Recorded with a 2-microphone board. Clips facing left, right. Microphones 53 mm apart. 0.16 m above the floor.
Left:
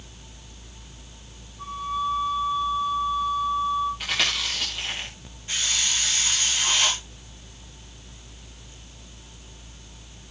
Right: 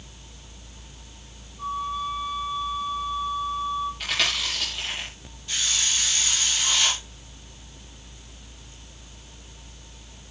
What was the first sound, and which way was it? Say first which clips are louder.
A flute: left 1 dB; 10° right (ahead or behind).